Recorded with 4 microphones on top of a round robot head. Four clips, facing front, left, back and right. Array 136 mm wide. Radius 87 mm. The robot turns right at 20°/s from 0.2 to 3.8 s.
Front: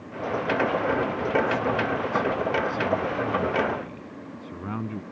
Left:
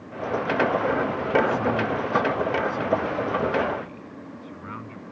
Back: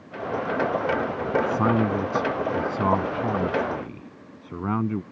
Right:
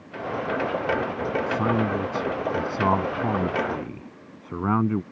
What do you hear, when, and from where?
1.5 s a man speaking: 160° right; by 5.0 s 115° right